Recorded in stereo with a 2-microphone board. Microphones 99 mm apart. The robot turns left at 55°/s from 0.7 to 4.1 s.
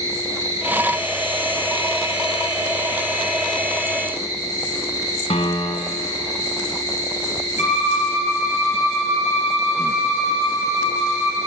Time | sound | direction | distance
0.0 | an insect | 35° right | 2.5 m
5.3 | a piano | 75° left (ahead or behind) | 1.2 m
7.6 | a violin | 85° left | 4 m